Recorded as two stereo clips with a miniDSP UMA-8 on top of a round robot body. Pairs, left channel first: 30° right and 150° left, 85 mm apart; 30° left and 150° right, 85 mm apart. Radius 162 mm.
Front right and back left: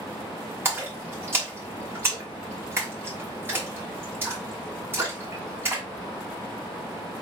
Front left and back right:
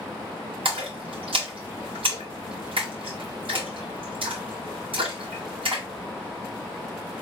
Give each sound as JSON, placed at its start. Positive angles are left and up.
{"t": 0.7, "sound": "a splash", "azimuth_deg": -145, "distance_m": 2.5}